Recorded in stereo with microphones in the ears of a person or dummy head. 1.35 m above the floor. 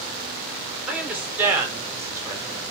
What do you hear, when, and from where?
0.9 s a woman speaking: 5° right (ahead or behind), 5.5 m; by 2.6 s 15° right (ahead or behind), 4.5 m